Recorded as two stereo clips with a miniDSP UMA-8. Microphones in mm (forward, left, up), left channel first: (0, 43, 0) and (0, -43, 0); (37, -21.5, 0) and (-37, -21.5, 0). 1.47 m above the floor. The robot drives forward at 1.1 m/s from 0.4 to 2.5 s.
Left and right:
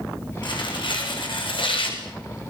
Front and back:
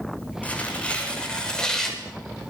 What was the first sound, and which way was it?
Tearing paper, 70° left.